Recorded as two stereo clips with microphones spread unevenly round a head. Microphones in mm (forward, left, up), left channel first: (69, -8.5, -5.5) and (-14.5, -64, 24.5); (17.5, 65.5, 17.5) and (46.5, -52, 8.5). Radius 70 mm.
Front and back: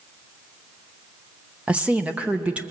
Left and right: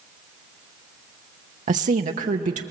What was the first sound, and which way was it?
A woman speaking, 65° right.